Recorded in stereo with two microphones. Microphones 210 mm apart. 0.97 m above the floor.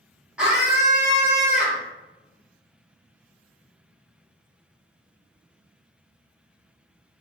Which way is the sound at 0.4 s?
5° right (ahead or behind).